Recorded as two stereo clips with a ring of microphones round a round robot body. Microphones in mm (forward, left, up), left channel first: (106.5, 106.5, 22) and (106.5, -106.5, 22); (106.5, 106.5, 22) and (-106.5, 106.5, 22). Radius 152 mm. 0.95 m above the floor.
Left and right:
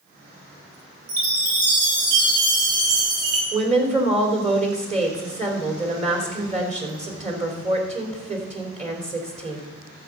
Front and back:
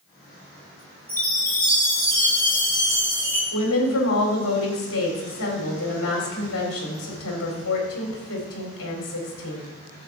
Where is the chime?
95° right, 3.5 m.